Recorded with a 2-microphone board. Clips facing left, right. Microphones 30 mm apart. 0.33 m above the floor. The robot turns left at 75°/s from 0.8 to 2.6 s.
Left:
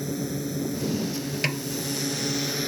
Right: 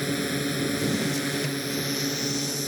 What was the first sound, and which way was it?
A drone, 65° right.